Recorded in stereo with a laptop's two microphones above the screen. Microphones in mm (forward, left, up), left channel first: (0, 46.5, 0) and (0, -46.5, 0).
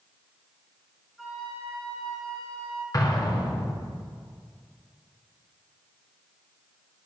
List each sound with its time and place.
1.2 s a flute: 5° right (ahead or behind), 1.9 m
2.9 s an explosion: 40° left (ahead or behind), 1.8 m